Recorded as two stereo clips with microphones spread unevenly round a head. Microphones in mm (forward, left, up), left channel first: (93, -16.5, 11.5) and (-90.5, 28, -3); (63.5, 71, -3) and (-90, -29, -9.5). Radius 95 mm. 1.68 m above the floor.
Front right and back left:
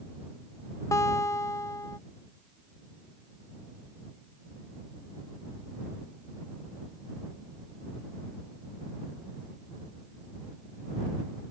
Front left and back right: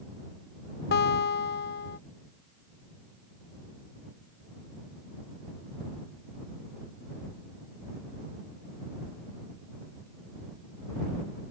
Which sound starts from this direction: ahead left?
A guitar, at 0.9 s.